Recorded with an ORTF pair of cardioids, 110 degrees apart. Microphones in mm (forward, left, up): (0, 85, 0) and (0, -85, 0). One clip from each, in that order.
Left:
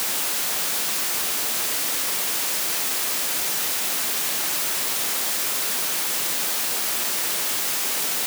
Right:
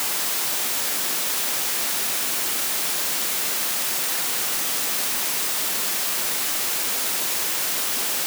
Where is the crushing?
I don't hear crushing.